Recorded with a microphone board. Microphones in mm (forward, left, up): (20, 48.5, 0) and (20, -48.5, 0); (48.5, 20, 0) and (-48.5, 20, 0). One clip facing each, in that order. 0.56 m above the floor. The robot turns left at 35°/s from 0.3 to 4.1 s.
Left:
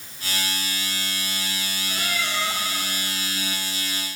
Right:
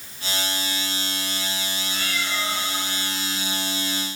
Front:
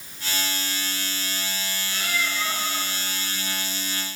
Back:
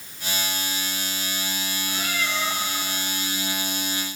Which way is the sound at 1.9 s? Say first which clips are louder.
Left 1 dB, even; 135° left.